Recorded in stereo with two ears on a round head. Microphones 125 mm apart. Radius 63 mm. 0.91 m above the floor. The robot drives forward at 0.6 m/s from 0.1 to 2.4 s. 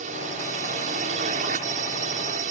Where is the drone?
55° right (ahead or behind).